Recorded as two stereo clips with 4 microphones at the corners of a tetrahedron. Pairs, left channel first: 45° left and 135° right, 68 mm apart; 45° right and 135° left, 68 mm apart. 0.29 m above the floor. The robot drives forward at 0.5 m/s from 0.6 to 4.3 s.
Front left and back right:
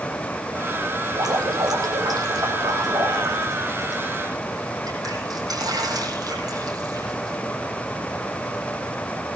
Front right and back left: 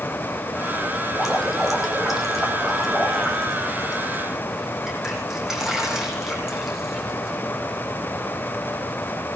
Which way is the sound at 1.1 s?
135° right.